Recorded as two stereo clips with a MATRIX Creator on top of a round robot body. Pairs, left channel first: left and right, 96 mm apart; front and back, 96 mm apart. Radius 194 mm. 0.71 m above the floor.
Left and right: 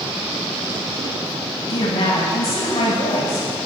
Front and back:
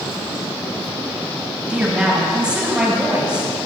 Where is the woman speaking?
100° left, 5.5 m.